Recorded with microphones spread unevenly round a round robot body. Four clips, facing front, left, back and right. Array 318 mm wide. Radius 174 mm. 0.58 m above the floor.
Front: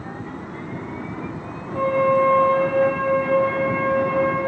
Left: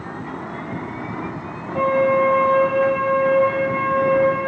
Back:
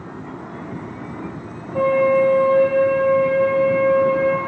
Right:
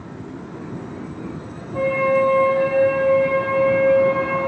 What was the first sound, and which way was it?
A flute, 170° left.